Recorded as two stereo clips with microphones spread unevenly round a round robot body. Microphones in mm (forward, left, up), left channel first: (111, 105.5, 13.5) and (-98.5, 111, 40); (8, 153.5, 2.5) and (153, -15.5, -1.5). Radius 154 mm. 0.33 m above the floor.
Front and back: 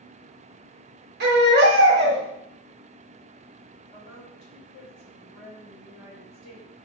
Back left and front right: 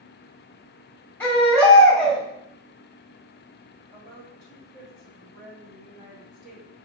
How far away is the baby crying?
About 0.9 m.